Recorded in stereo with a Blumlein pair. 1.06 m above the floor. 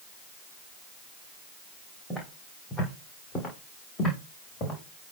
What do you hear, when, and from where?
2.1 s footsteps: 10° left, 3.5 m; by 5.1 s 35° left, 4 m